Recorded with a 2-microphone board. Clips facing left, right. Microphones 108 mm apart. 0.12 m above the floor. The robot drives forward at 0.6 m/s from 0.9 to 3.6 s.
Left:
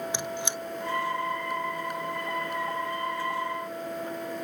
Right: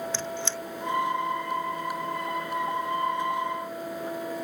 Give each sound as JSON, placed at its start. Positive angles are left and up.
{"t": 0.1, "sound": "a squeak", "side_deg": 15}